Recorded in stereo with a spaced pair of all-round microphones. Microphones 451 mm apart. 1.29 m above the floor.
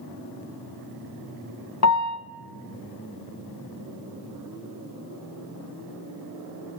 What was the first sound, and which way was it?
A piano, 35° left (ahead or behind).